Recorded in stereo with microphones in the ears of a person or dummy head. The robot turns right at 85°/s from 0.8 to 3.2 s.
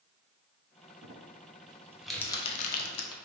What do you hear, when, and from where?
1.0 s crumpling: 60° right (ahead or behind), 0.8 m; by 3.1 s 60° left (ahead or behind), 0.8 m